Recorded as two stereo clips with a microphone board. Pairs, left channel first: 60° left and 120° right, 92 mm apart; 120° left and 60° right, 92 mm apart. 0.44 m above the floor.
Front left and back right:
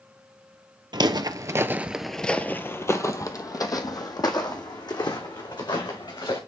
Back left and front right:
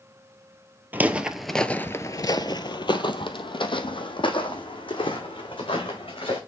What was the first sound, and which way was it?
Footsteps, 125° right.